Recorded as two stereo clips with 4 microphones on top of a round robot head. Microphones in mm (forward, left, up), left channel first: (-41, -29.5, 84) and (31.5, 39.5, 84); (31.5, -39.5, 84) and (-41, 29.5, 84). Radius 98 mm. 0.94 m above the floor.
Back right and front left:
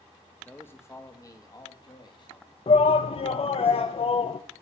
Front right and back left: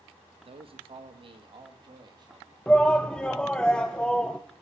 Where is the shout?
125° right, 0.6 m.